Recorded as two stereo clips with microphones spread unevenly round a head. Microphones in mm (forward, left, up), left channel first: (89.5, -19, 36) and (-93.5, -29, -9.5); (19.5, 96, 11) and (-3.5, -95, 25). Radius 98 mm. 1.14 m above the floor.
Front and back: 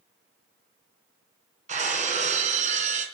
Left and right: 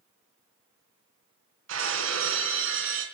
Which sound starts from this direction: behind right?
Breaking glass, at 1.7 s.